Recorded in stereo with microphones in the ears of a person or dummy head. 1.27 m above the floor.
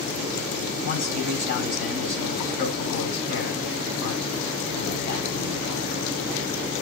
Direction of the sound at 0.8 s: 60° left (ahead or behind).